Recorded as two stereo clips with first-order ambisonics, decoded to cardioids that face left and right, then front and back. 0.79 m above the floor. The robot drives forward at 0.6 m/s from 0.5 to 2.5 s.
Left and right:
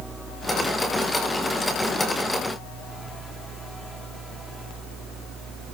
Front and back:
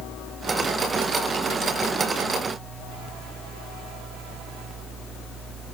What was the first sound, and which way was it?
Only background noise.